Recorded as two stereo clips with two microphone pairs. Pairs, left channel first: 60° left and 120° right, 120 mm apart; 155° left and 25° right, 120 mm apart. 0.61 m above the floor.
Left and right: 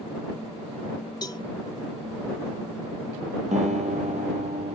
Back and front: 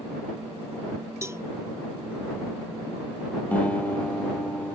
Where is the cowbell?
30° left.